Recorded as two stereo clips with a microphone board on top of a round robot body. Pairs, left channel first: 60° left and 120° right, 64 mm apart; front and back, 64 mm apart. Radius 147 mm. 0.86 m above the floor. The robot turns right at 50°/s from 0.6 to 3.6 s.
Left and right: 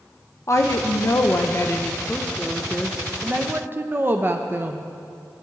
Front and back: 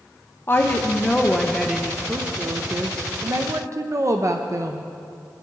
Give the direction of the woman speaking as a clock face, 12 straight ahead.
11 o'clock.